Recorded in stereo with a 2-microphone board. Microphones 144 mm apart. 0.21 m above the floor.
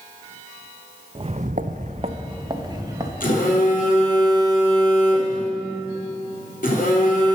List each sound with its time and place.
1.1 s footsteps: 35° right (ahead or behind), 0.7 m; by 3.1 s 25° right (ahead or behind), 2.0 m
3.2 s a phone buzzing: 75° left (ahead or behind), 3 m